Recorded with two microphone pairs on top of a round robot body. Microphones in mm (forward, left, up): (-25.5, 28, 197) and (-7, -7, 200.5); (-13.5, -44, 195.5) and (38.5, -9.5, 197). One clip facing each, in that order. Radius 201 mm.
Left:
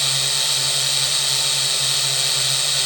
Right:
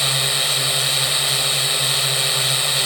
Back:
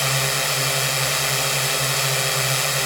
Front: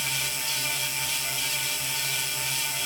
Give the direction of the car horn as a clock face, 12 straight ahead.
I don't hear a car horn.